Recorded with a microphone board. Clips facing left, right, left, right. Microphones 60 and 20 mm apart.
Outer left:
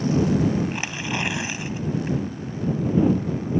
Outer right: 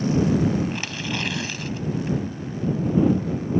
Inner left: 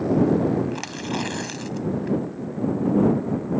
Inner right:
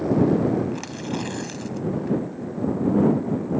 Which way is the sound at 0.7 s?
20° left (ahead or behind).